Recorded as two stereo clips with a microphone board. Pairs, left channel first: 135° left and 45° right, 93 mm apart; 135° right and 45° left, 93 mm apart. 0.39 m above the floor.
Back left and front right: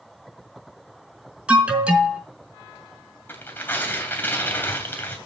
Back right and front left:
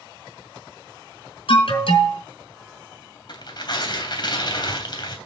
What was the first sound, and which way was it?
An alarm, 120° right.